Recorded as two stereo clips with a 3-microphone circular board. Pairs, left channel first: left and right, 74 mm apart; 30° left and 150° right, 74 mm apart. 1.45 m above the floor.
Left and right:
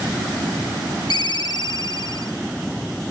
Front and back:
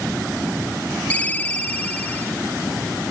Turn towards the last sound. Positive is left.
turn(degrees=100)